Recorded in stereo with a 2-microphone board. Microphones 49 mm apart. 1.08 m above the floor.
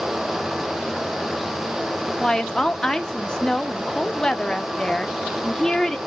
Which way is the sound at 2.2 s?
15° left (ahead or behind).